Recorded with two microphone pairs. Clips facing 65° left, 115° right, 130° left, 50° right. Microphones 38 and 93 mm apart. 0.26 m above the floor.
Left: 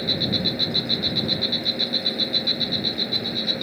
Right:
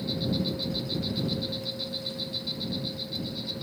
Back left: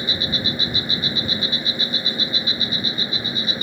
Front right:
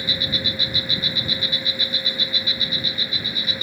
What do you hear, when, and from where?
0.0 s an insect: 65° left